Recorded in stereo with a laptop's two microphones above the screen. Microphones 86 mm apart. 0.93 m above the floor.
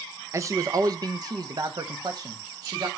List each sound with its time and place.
0.3 s a man speaking: 30° right (ahead or behind), 0.7 m; by 2.9 s 45° right (ahead or behind), 1.8 m